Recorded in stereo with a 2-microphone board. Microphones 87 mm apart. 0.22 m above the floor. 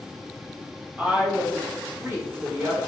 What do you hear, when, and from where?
1.0 s a woman speaking: 15° right (ahead or behind), 1.0 m; by 2.8 s 30° right (ahead or behind), 1.6 m